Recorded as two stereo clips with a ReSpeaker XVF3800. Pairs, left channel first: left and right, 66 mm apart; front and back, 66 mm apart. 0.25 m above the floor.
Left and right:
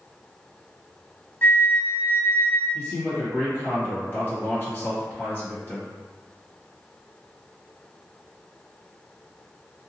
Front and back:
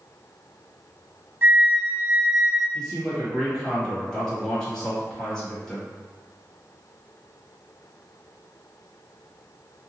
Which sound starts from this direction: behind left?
A flute, at 1.4 s.